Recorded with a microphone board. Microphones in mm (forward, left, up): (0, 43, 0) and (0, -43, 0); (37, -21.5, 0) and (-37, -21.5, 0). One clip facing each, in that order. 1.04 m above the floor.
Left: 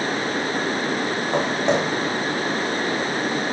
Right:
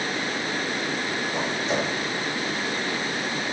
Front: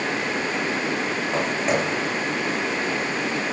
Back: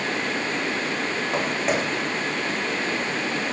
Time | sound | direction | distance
1.3 | footsteps | 95° left | 4 m